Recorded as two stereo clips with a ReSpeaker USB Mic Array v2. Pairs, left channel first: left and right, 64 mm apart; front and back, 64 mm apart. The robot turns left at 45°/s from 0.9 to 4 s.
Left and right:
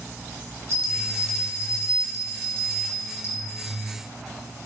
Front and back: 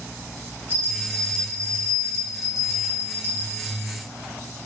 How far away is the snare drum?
I don't hear a snare drum.